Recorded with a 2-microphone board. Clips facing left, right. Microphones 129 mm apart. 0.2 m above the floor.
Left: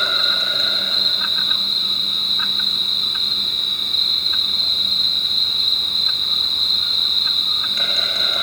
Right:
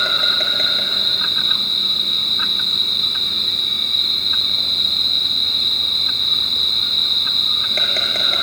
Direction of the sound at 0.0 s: 70° right (ahead or behind).